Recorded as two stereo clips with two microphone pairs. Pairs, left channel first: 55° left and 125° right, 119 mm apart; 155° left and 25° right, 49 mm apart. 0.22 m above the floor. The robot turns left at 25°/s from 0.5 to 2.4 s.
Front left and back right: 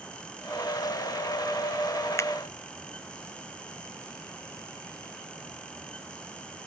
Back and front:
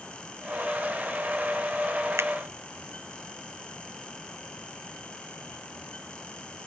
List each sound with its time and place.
2.2 s a finger snap: 10° right